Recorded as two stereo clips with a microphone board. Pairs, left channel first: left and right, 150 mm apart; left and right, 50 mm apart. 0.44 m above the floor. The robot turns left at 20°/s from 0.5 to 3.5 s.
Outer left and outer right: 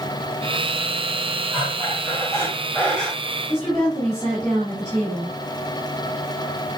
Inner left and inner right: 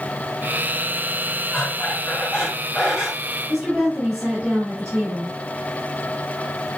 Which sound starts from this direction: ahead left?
Breathing, at 1.5 s.